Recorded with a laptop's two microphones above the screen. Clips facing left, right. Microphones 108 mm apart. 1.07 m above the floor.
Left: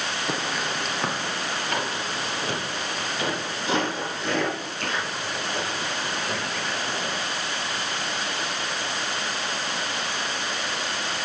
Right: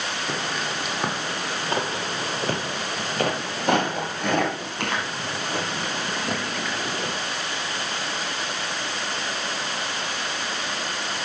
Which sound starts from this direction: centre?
Footsteps, at 0.3 s.